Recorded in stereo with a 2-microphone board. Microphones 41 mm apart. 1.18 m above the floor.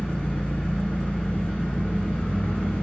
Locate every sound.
0.0 s an engine running: 30° left (ahead or behind), 3 m